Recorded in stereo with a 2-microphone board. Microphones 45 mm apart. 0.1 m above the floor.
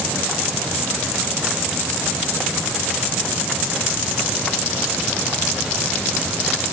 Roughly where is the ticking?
I don't hear ticking.